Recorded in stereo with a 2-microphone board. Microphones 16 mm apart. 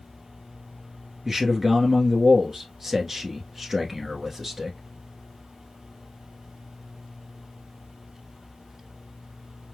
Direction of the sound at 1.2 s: 30° right (ahead or behind).